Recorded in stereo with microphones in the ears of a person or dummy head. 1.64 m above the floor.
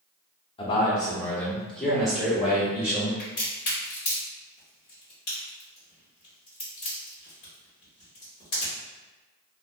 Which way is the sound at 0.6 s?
30° left (ahead or behind).